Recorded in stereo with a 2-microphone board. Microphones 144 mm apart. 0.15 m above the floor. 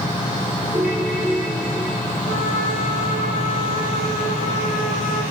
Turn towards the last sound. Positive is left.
turn(degrees=45)  # may be behind; listen again after turning